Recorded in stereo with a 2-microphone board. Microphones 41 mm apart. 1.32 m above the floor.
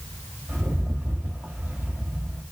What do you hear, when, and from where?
0.5 s a rattle: 55° right (ahead or behind), 3 m